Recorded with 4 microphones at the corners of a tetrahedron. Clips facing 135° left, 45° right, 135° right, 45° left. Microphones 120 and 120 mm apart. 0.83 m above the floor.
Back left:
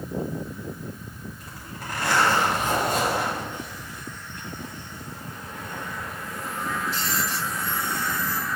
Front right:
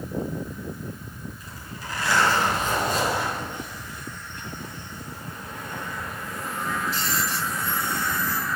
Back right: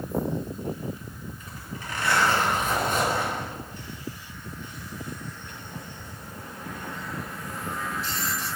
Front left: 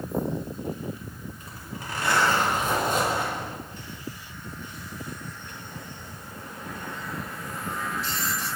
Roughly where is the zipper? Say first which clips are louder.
Back left 1 dB, even; left.